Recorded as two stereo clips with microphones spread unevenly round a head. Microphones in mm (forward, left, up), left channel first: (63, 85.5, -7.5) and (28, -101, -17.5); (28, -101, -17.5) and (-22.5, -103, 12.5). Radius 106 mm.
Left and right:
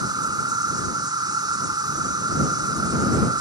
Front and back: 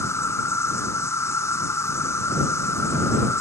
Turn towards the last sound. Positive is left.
turn(degrees=-30)